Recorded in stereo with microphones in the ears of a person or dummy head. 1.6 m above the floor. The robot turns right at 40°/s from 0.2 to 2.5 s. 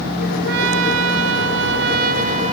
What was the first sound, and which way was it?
A trumpet, 110° right.